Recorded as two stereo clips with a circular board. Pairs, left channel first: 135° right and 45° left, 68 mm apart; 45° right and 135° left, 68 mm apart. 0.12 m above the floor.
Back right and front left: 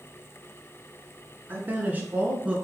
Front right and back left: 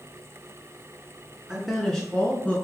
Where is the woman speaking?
65° left, 1.3 m; by 2.5 s 10° right, 1.4 m.